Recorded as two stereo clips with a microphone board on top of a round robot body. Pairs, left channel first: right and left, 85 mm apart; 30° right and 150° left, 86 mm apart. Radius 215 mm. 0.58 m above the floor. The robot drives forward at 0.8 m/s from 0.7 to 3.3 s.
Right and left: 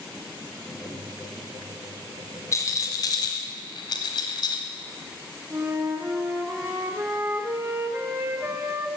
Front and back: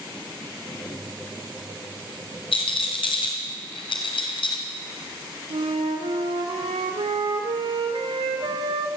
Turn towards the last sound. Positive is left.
turn(degrees=155)